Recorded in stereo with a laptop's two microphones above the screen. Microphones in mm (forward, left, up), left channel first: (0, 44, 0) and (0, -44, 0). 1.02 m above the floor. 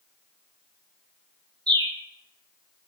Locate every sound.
1.7 s a bird: 55° right (ahead or behind), 1.1 m